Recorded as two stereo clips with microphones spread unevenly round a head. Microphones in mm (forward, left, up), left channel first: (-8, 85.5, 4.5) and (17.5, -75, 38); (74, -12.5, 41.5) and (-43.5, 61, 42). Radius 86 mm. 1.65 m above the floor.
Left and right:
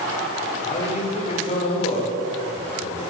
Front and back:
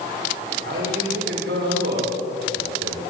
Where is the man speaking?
155° left, 7 m.